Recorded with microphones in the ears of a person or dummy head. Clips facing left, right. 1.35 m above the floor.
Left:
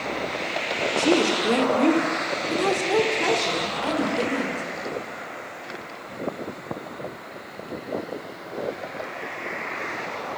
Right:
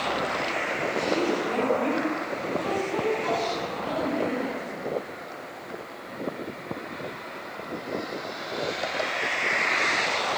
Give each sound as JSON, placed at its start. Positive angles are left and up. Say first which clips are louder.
{"t": 1.0, "sound": "a woman speaking", "louder": "left 5 dB", "side_deg": 65, "distance_m": 3.5}